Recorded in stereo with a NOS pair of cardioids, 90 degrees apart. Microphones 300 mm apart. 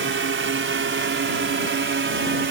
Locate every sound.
0.0 s a drone: 40° right; by 2.5 s 35° right